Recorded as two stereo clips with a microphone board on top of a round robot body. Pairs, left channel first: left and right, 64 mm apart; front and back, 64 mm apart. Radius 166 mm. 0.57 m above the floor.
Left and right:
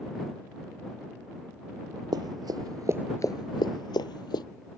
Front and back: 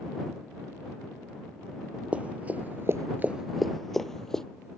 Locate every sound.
2.1 s running footsteps: 110° right; by 4.5 s 85° left